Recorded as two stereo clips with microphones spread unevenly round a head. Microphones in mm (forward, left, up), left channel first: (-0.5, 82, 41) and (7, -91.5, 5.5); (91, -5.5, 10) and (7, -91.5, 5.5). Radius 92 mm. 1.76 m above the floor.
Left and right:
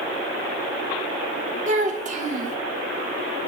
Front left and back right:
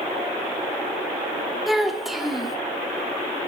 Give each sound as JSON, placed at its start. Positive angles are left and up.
{"t": 1.7, "sound": "a child speaking", "azimuth_deg": -45, "distance_m": 1.0}